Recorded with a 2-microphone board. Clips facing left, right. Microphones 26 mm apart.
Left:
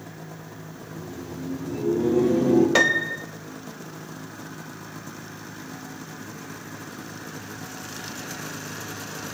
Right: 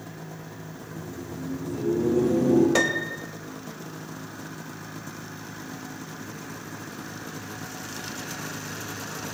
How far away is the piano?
About 0.6 m.